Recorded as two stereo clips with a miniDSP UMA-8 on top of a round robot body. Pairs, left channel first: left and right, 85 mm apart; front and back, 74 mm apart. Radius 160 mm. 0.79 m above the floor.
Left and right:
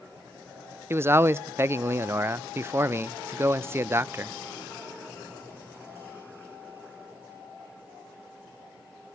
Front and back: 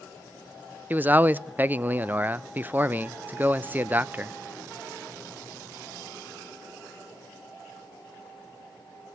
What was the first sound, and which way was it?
A man speaking, 130° right.